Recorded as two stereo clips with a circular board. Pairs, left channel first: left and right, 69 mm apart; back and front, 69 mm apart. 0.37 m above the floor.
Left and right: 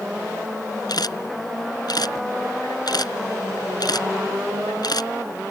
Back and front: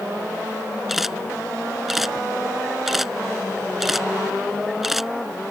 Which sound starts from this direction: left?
A camera shutter, at 0.9 s.